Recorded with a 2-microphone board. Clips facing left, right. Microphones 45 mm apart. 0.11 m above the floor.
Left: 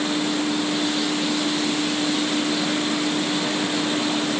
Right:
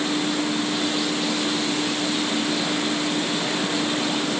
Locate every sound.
Only background noise.